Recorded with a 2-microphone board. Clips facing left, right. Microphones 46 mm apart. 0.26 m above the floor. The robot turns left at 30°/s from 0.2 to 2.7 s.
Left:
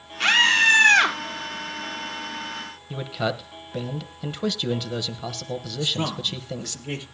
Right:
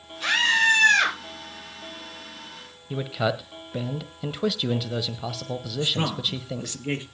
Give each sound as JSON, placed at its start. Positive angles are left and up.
{"t": 0.2, "sound": "a scream", "side_deg": 65, "distance_m": 6.5}
{"t": 2.9, "sound": "a man speaking", "side_deg": -5, "distance_m": 1.0}
{"t": 5.8, "sound": "a man speaking", "side_deg": -30, "distance_m": 4.5}